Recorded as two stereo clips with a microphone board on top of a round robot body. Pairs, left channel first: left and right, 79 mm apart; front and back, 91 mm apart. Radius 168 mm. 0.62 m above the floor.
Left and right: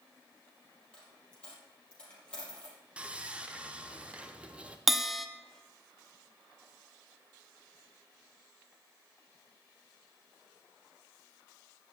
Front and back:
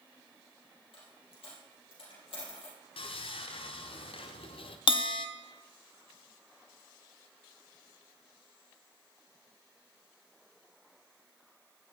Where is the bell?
5° right, 0.9 m.